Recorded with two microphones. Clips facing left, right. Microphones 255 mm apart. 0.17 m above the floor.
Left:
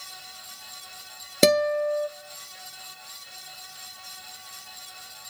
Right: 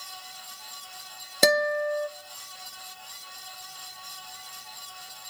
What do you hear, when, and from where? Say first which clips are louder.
1.4 s a guitar: left 4 dB; 30° left (ahead or behind), 0.6 m